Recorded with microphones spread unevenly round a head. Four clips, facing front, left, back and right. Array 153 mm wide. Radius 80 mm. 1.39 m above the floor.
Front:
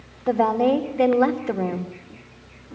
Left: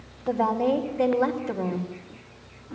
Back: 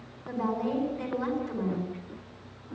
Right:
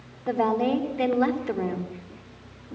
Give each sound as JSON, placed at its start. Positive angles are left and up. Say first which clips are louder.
{"t": 0.3, "sound": "a woman speaking", "louder": "even, front 11 dB", "azimuth_deg": -20, "distance_m": 4.0}